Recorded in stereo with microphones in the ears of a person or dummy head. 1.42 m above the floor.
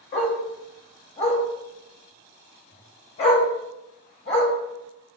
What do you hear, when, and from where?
0.1 s a dog barking: 25° left (ahead or behind), 0.8 m